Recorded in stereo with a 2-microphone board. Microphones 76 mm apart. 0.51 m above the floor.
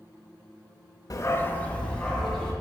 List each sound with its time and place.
1.1 s a dog barking: 50° left (ahead or behind), 0.6 m; by 2.5 s 10° left (ahead or behind), 2 m